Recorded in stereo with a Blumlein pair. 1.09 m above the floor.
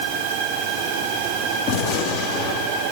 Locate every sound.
1.7 s a gunshot: 45° left, 3 m